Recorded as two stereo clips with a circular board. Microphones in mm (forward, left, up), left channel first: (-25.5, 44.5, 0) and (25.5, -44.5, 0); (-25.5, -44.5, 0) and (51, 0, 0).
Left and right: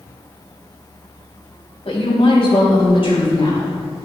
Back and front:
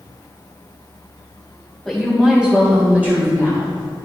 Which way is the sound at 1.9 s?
120° left.